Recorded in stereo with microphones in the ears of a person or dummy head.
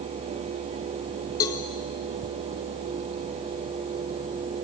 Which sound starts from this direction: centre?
A cowbell, at 1.4 s.